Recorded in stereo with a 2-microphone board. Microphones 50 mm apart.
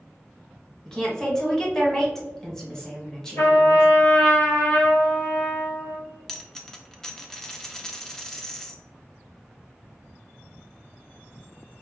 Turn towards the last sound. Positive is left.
turn(degrees=10)  # may be behind; listen again after turning